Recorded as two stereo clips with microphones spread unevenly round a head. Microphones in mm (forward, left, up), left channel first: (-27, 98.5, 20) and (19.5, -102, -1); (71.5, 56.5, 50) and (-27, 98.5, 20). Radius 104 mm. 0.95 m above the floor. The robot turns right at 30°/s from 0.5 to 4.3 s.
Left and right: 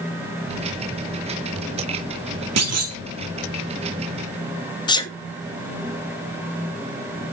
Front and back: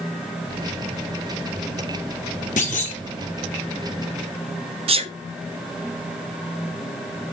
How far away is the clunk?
About 1.3 m.